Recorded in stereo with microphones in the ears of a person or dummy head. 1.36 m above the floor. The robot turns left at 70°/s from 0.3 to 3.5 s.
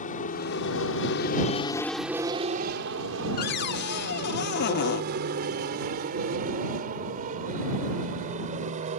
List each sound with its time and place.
0.0 s an aircraft: 45° left (ahead or behind); by 9.0 s 40° right (ahead or behind)
3.4 s a cupboard door: 55° left (ahead or behind); by 5.0 s 60° left (ahead or behind)